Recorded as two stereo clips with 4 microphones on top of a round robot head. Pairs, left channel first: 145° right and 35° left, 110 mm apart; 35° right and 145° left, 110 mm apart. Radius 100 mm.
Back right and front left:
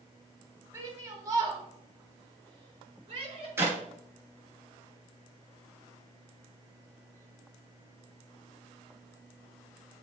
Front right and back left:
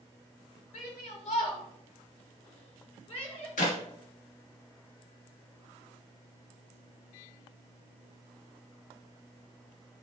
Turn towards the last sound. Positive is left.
turn(degrees=-35)